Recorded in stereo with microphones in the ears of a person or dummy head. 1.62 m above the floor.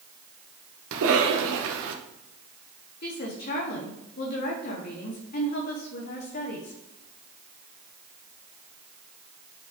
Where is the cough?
70° right (ahead or behind), 1.3 m.